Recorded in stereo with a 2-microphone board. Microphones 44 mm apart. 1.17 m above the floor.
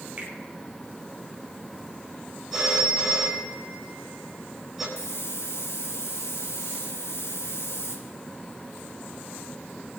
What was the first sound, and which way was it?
A finger snap, 25° right (ahead or behind).